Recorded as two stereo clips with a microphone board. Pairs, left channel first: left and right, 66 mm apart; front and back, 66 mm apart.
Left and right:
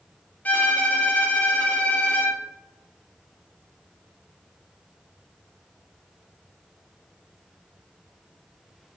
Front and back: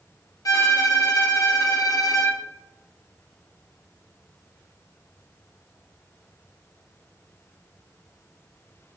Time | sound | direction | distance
0.5 | a violin | 25° left | 0.7 m